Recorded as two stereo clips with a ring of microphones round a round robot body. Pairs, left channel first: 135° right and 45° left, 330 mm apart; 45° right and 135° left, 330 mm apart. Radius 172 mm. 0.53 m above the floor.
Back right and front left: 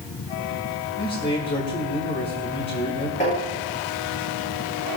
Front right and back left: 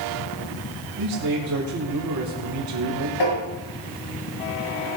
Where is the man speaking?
165° left, 2.5 m.